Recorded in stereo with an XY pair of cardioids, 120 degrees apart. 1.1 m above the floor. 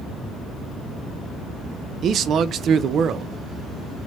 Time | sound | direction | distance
2.0 | a man speaking | 55° right | 0.5 m